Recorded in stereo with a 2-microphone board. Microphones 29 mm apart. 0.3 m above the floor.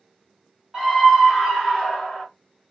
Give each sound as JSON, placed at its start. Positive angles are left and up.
{"t": 0.7, "sound": "a scream", "side_deg": -20, "distance_m": 1.4}